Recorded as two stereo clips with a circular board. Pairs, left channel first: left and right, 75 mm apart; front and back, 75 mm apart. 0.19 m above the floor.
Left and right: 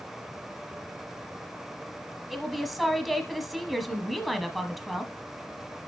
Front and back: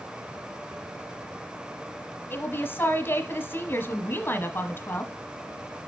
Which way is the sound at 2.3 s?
5° left.